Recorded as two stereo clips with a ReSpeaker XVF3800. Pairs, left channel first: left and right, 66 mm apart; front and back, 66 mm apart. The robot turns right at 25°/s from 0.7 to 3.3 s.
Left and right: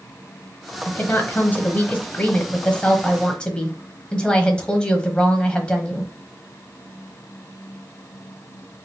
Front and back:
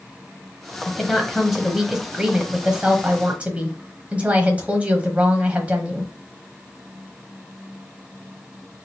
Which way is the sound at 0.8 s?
80° left.